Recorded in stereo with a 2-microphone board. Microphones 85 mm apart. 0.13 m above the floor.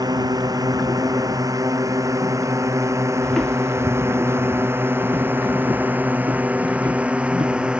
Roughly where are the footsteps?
Centre.